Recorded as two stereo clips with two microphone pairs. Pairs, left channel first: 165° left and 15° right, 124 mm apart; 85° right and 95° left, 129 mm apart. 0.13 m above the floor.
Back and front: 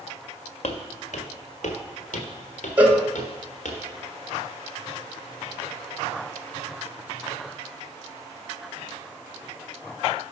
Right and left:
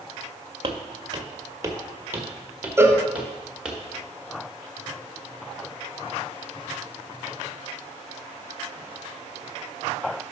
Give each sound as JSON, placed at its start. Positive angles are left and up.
{"t": 0.6, "sound": "footsteps", "azimuth_deg": 140, "distance_m": 1.2}
{"t": 2.8, "sound": "a cowbell", "azimuth_deg": 50, "distance_m": 0.8}